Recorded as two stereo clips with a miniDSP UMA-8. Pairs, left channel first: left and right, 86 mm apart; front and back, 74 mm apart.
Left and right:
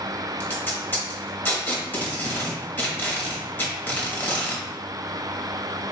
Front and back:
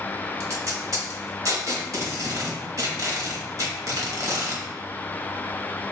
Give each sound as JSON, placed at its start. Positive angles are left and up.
{"t": 0.4, "sound": "tape being pulled", "azimuth_deg": 150, "distance_m": 0.8}